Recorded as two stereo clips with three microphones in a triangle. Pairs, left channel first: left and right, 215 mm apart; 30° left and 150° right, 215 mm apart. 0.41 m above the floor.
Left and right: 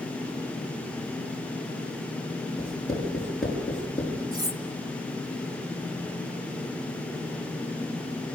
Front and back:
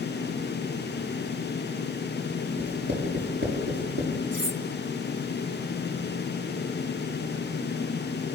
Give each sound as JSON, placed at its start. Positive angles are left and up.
{"t": 2.6, "sound": "writing", "azimuth_deg": 180, "distance_m": 7.0}
{"t": 4.3, "sound": "cutlery clinking", "azimuth_deg": -160, "distance_m": 1.4}